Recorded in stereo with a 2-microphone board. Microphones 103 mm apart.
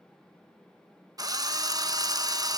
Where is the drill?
35° right (ahead or behind), 0.9 m.